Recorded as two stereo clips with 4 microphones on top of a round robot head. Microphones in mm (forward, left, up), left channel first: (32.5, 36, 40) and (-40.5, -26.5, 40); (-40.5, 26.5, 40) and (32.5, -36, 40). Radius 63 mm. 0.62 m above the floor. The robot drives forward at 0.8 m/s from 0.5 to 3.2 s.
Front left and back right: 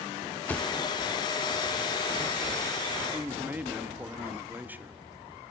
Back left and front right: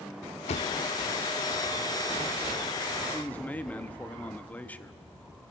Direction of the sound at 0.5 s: 115° left.